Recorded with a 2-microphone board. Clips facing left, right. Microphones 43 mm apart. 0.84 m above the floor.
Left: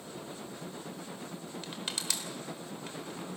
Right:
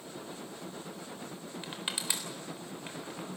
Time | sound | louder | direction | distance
1.6 | crushing | right 2 dB | 15° right (ahead or behind) | 3.5 m